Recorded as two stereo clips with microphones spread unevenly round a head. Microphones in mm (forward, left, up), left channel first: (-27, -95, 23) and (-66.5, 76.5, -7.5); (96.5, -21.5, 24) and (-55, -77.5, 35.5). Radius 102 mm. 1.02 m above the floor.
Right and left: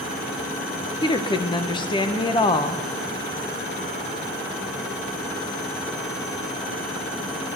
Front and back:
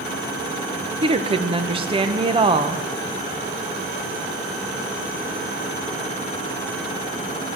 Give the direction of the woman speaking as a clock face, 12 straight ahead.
4 o'clock.